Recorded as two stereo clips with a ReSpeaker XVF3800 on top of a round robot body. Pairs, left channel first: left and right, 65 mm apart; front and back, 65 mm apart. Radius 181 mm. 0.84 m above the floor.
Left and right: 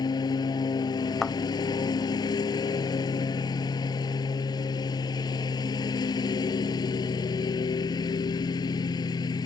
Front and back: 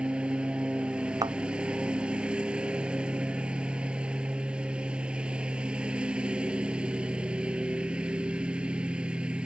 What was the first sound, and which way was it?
A lawn mower, 105° left.